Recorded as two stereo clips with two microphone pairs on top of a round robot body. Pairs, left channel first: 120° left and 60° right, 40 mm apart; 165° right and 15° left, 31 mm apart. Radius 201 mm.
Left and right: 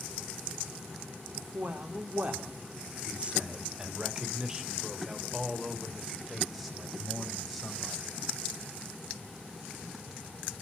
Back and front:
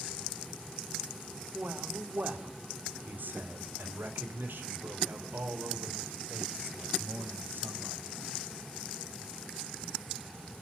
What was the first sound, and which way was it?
A man speaking, 25° right.